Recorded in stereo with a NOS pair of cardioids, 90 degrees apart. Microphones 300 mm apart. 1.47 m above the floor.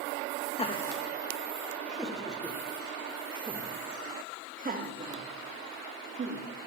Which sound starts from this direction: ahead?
Laughter, at 0.6 s.